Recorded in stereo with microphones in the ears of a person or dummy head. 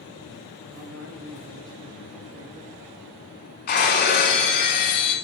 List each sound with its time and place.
0.7 s a man speaking: 80° right, 4 m; by 3.1 s 40° right (ahead or behind), 3 m
3.7 s breaking glass: 45° left (ahead or behind), 1.8 m